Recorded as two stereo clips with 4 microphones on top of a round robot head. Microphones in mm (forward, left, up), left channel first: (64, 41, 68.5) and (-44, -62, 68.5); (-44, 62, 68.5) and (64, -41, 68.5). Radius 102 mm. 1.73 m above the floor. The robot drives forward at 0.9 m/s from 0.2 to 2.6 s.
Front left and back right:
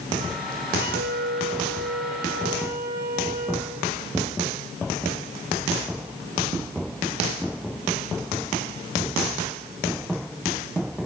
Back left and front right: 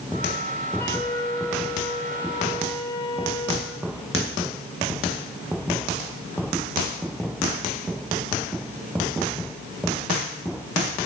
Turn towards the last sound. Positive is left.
turn(degrees=-160)